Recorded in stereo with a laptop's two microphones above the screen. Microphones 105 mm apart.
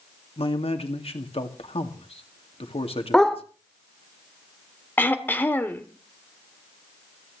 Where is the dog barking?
5° left (ahead or behind), 1.0 m.